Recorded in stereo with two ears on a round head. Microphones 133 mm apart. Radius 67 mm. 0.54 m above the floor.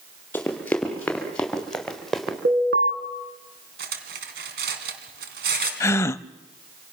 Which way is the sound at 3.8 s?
75° right (ahead or behind).